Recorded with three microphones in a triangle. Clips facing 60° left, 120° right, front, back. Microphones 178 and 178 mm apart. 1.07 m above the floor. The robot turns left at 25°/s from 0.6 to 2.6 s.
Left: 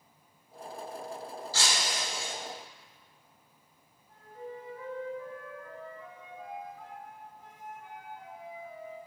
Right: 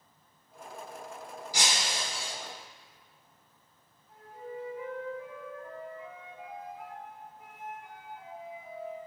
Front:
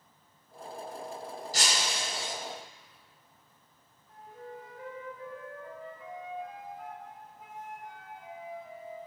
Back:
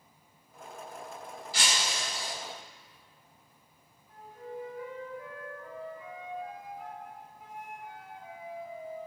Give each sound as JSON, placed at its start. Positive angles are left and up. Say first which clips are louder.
{"t": 1.5, "sound": "breaking glass", "louder": "right 1 dB, even", "azimuth_deg": -45, "distance_m": 1.6}
{"t": 4.1, "sound": "a flute", "louder": "right 1 dB, back 3 dB", "azimuth_deg": -40, "distance_m": 5.0}